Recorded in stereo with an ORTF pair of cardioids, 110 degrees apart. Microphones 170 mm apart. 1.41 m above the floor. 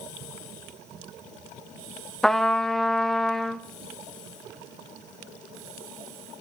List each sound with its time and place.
2.2 s a trumpet: 5° left, 1.0 m